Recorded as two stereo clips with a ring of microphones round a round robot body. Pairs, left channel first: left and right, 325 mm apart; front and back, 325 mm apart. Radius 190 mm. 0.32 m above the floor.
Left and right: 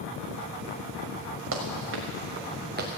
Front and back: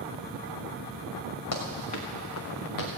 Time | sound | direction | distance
1.5 | running footsteps | 40° right | 4 m